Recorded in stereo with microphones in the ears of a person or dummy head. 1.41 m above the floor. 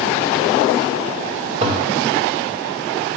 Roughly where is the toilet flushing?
Right.